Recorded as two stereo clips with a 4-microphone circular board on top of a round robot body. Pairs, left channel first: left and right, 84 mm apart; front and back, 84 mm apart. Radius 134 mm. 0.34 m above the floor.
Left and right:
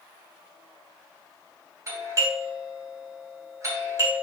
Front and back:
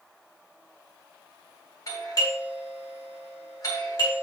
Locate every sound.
1.9 s a doorbell: 40° right, 4 m